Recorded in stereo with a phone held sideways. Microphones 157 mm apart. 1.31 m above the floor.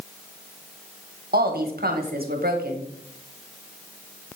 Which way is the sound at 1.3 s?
75° right (ahead or behind).